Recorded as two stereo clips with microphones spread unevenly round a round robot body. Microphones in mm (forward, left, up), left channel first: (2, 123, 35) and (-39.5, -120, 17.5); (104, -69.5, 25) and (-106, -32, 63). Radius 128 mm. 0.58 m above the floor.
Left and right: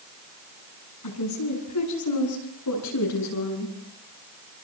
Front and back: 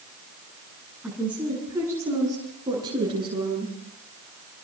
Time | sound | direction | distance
1.0 | a woman speaking | 85° left | 8 m